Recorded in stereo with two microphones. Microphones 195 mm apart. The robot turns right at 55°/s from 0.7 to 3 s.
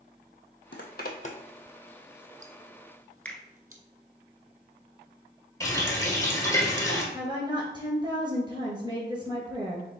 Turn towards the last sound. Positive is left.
turn(degrees=-25)  # may be behind; listen again after turning